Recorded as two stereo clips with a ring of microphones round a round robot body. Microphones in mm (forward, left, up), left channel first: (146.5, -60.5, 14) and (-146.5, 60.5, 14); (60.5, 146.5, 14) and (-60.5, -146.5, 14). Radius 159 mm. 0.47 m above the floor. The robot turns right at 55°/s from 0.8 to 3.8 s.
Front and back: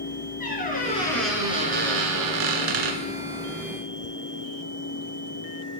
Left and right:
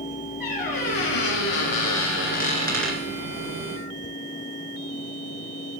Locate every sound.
0.4 s a squeak: 40° left, 2 m; by 3.0 s 165° left, 2 m